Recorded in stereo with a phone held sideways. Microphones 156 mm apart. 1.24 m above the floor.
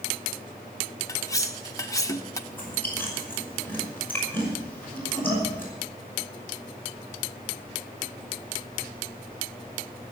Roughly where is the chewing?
Centre.